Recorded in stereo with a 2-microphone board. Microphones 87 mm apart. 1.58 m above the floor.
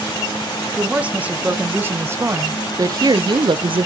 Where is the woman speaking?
10° right (ahead or behind), 1.9 m; by 3.9 s 85° right, 0.7 m.